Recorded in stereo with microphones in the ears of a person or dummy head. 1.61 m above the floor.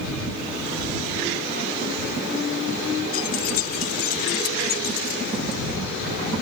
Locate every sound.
3.1 s keys jangling: 45° left (ahead or behind); by 5.6 s 55° left (ahead or behind)